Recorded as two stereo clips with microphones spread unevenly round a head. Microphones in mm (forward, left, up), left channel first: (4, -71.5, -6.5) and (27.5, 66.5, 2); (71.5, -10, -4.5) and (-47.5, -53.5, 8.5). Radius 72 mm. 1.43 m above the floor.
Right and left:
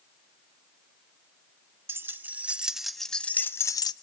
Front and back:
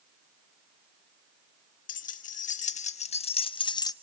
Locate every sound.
1.9 s keys jangling: 10° left, 1.7 m; by 3.9 s 40° right, 1.0 m